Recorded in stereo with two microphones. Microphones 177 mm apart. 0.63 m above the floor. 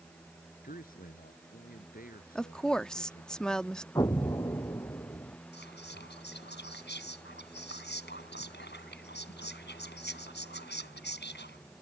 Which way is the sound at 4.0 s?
20° left (ahead or behind).